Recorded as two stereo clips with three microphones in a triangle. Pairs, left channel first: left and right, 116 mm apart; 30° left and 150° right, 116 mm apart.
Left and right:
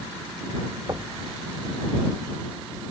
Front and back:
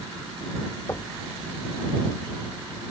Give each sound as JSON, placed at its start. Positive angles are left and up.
{"t": 0.9, "sound": "knocking", "azimuth_deg": -35}